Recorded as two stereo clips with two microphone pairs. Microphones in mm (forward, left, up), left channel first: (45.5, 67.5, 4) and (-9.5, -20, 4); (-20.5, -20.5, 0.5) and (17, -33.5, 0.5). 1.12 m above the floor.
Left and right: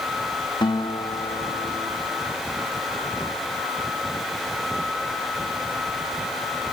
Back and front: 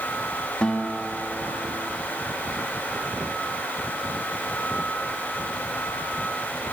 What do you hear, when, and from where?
0.6 s a guitar: 105° left, 1.2 m